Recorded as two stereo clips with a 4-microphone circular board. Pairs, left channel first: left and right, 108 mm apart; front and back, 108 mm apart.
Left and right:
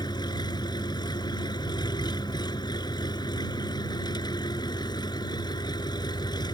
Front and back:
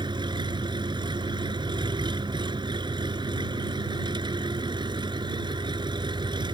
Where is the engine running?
135° left.